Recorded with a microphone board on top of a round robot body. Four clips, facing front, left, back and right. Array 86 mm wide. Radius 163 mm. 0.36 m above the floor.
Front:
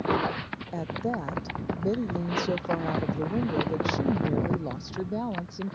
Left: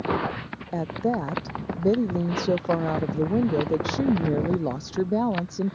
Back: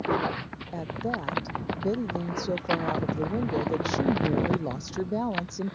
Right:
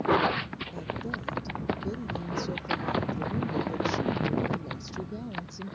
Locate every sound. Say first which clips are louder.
0.7 s a woman speaking: left 11 dB, front 1 dB; 85° left; by 5.8 s 105° left